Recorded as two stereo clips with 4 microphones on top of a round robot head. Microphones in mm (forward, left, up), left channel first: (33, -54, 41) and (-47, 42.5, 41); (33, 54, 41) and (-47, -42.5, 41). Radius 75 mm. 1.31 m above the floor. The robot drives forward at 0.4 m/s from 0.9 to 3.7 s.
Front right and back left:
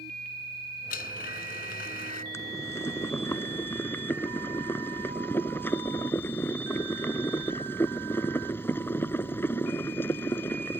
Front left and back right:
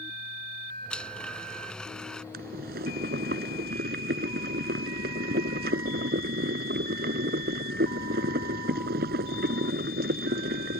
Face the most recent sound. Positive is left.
turn(degrees=-125)